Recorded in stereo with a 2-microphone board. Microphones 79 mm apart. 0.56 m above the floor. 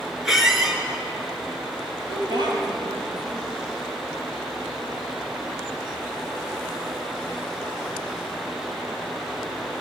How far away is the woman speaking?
About 3 m.